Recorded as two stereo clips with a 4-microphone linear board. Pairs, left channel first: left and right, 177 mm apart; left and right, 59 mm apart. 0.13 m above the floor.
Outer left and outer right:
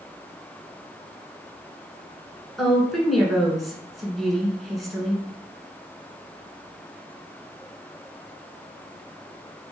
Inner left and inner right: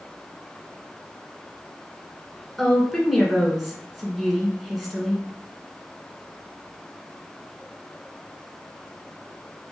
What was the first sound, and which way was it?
A woman speaking, centre (ahead or behind).